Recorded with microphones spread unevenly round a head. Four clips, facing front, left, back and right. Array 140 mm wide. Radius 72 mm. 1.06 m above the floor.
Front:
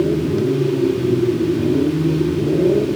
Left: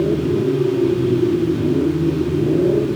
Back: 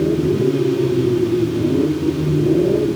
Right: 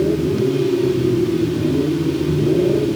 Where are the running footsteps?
I don't hear running footsteps.